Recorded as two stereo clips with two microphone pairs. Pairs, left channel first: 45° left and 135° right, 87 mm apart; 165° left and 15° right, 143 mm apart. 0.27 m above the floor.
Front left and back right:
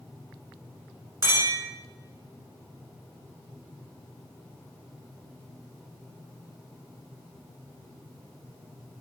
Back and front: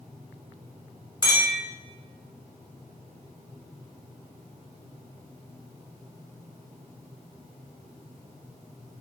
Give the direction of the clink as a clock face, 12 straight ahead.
3 o'clock.